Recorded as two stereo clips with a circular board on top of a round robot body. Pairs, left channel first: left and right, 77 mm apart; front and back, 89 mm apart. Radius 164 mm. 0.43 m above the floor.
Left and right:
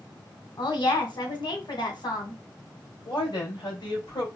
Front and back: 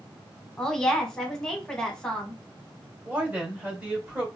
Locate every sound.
0.6 s a woman speaking: 85° left, 2 m
3.0 s a woman speaking: 110° left, 3 m